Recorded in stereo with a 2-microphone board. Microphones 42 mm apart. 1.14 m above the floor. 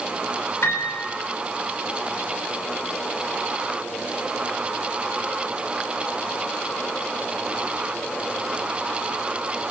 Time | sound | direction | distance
0.6 | a piano | 75° left (ahead or behind) | 7 m